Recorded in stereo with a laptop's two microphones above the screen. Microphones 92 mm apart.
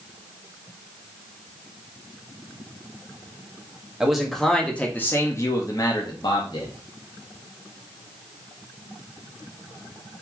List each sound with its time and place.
4.0 s a man speaking: 5° right (ahead or behind), 1.4 m; by 6.7 s 60° left (ahead or behind), 1.5 m